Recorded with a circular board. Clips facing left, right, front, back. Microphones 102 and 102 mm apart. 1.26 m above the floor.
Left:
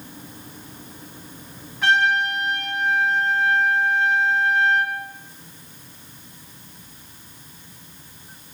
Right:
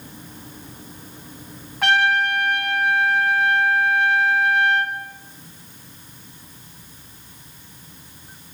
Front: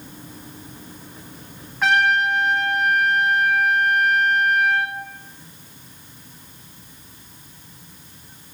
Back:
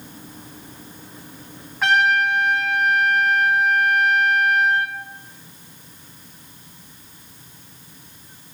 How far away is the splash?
No splash in this recording.